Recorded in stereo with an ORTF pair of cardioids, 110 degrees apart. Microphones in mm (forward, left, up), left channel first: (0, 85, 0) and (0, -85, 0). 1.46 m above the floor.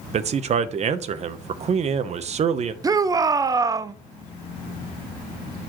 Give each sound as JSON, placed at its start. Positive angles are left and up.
{"t": 0.1, "sound": "a man speaking", "azimuth_deg": -45, "distance_m": 0.9}
{"t": 2.8, "sound": "a shout", "azimuth_deg": -20, "distance_m": 0.5}